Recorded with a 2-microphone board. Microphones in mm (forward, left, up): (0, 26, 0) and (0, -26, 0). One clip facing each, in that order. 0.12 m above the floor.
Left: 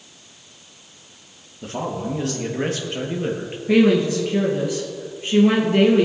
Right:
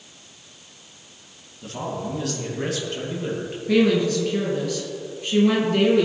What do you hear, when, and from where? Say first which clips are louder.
1.6 s a man speaking: left 3 dB; 40° left (ahead or behind), 3 m
3.7 s a woman speaking: left 3 dB; 20° left (ahead or behind), 2.5 m